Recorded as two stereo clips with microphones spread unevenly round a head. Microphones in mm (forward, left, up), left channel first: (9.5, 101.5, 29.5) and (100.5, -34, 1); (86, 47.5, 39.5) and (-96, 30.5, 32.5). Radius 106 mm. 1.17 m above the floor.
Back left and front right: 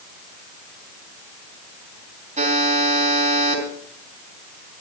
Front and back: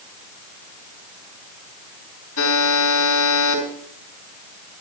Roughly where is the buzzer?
Ahead.